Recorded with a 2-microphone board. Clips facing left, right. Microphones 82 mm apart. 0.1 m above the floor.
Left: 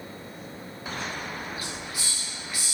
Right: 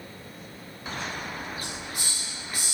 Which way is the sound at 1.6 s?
45° right (ahead or behind).